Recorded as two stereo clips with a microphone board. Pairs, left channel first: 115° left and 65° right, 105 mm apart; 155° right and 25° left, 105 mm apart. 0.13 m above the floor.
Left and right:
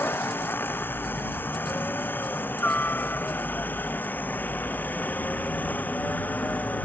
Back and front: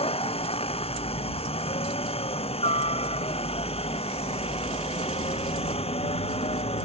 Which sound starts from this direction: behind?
A helicopter, at 0.0 s.